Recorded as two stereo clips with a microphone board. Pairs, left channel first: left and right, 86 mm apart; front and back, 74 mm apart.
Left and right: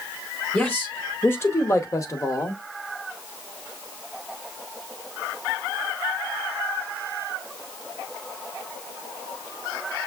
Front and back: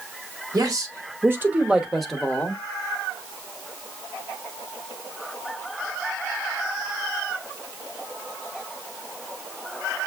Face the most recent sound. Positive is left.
turn(degrees=55)